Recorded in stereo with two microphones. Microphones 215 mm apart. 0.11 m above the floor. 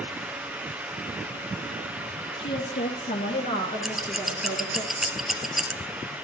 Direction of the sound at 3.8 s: Centre (ahead or behind).